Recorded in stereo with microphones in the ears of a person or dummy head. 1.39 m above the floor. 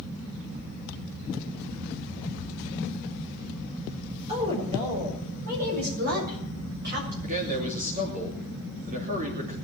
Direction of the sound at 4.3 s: 30° right (ahead or behind).